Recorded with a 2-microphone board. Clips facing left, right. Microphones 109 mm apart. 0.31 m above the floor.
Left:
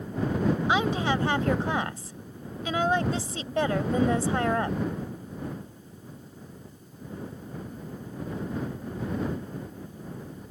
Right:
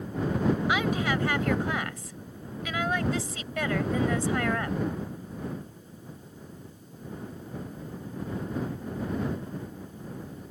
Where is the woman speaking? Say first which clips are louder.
Left 2 dB; 30° left (ahead or behind).